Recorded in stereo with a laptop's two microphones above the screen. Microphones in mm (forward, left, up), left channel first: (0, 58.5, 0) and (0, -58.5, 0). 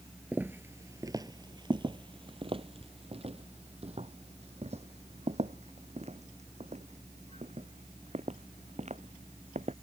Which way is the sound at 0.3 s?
15° right (ahead or behind).